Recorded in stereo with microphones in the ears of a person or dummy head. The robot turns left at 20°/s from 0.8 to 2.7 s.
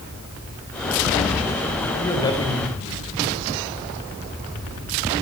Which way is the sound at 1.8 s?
10° left (ahead or behind).